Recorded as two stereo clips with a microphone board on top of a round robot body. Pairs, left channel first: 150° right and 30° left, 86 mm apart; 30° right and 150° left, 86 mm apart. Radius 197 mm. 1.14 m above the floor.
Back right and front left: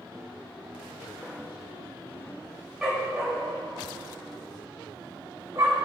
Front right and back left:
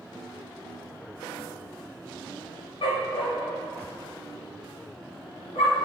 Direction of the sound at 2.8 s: 55° right.